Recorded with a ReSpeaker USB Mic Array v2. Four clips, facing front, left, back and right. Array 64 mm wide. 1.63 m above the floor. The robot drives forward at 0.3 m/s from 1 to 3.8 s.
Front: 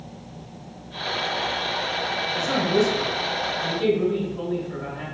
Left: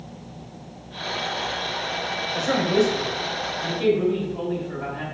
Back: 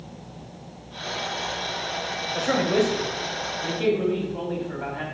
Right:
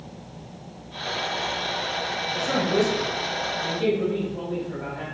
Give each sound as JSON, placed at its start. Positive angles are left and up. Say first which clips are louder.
{"t": 2.4, "sound": "a man speaking", "louder": "left 2 dB, even", "azimuth_deg": 155, "distance_m": 0.7}